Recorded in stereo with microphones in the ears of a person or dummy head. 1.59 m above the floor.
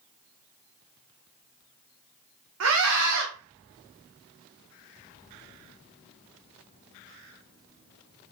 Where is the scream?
75° right (ahead or behind), 0.7 m.